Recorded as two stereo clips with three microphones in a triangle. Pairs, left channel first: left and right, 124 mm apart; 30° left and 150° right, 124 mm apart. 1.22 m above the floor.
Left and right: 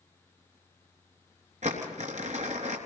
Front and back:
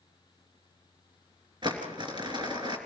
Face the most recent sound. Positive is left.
turn(degrees=-100)